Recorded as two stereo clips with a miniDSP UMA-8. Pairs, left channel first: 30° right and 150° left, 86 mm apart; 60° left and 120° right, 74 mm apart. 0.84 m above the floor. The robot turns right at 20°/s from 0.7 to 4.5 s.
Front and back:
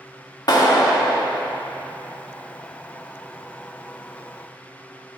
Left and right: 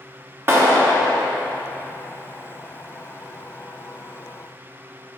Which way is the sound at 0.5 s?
65° right.